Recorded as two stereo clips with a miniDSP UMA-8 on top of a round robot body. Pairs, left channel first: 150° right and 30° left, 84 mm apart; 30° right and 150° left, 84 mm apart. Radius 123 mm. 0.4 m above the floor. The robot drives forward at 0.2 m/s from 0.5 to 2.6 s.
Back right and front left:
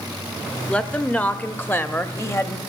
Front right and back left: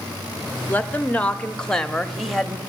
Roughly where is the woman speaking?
Right.